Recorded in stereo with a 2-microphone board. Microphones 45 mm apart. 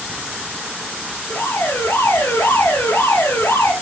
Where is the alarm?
75° left (ahead or behind), 6 m.